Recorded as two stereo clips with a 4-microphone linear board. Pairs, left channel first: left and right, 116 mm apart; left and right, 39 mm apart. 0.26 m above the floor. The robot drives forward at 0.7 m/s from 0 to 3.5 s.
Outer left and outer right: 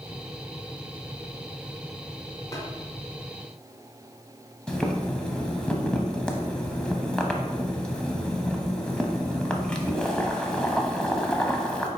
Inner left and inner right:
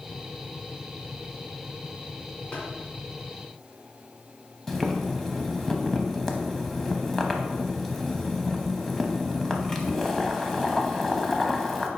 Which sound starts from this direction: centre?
Boiling, at 4.7 s.